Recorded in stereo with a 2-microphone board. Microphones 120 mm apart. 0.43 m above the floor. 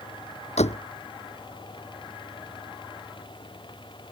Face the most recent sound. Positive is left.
turn(degrees=70)  # may be behind; listen again after turning